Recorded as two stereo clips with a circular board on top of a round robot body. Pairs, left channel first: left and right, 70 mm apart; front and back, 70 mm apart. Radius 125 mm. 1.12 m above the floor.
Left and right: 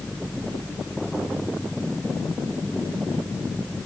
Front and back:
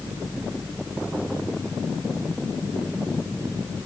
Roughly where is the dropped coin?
No dropped coin in this recording.